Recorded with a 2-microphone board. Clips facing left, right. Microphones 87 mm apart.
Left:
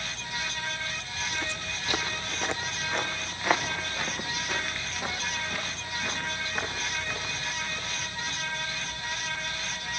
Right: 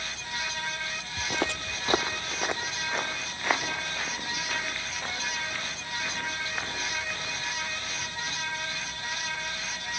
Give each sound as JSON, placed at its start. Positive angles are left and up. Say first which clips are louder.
{"t": 1.2, "sound": "footsteps", "louder": "right 5 dB", "side_deg": -65, "distance_m": 0.6}